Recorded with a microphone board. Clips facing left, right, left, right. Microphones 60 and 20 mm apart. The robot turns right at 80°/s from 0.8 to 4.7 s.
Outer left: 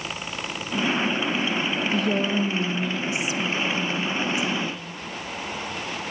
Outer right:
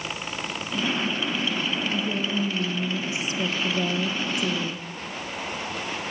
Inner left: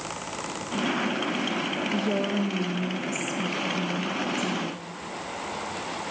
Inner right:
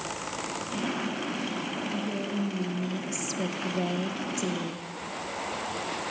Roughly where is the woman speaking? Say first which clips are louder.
Outer left 4 dB, inner left 7 dB; left.